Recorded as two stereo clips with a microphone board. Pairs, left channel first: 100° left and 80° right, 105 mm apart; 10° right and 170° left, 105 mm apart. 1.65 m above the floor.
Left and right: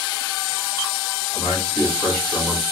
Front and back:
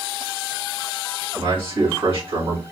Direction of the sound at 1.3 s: 175° left.